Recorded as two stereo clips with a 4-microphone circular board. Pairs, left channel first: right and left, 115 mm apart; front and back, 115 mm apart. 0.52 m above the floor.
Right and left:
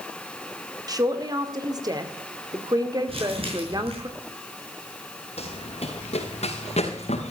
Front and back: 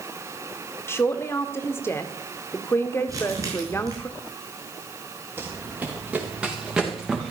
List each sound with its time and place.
0.9 s a man speaking: 55° left, 1.7 m
3.1 s crumpling: 120° left, 6 m
5.4 s running footsteps: 110° right, 3.5 m; by 7.3 s 90° right, 4 m